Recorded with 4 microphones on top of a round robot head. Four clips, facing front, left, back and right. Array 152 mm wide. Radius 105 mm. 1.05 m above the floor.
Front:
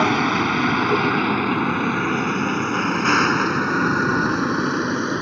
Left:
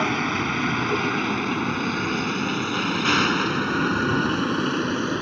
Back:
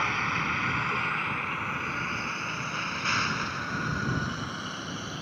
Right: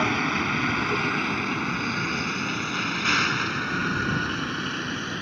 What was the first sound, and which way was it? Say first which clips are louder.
A vehicle: left 1 dB, front 11 dB; 5° left.